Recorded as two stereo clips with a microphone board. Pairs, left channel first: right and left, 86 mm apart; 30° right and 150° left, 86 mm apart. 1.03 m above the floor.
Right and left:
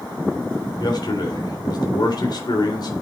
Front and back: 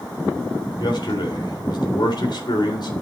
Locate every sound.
0.8 s a man speaking: 55° right, 3.5 m